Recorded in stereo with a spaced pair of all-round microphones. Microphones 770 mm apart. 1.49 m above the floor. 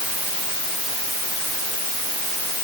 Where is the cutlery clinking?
I don't hear cutlery clinking.